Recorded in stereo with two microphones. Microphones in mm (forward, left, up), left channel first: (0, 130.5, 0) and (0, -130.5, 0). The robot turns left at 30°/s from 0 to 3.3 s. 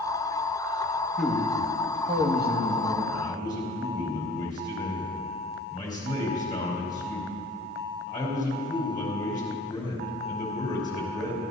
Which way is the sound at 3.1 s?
20° left (ahead or behind).